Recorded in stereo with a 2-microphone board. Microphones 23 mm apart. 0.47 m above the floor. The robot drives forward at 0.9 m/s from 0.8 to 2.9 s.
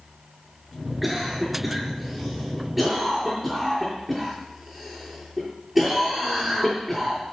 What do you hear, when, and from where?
1.0 s a cough: centre (ahead or behind), 5 m